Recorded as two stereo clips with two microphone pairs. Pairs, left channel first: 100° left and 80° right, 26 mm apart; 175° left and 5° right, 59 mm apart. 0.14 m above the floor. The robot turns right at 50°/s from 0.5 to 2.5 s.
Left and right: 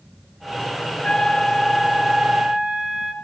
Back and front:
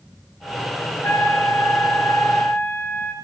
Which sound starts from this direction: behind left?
A trumpet, at 1.0 s.